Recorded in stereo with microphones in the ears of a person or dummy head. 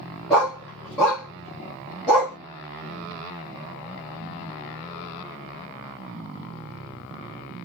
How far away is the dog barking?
About 0.7 m.